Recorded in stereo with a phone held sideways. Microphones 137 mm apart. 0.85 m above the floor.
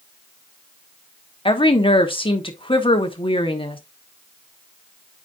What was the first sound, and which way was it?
A woman speaking, 40° left (ahead or behind).